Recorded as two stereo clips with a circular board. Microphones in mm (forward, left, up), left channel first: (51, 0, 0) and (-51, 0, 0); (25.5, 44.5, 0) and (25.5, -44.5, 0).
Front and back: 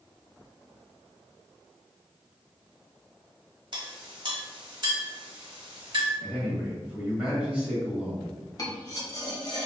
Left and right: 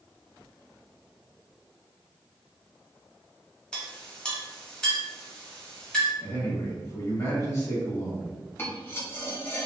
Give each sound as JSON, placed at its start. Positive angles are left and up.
{"t": 3.7, "sound": "a clink", "azimuth_deg": 165, "distance_m": 1.2}
{"t": 6.2, "sound": "a man speaking", "azimuth_deg": 105, "distance_m": 1.8}
{"t": 8.6, "sound": "cutlery clinking", "azimuth_deg": 35, "distance_m": 1.0}